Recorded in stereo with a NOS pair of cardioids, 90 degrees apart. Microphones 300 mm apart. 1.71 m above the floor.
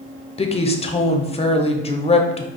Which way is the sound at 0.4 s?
20° left.